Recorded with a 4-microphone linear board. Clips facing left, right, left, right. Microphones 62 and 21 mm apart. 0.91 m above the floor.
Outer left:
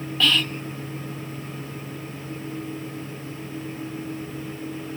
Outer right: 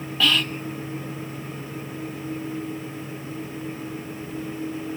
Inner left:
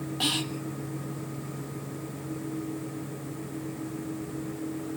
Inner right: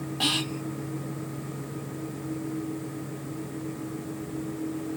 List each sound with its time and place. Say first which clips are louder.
0.2 s whispering: even, inner right 2 dB; 5° right (ahead or behind), 1.4 m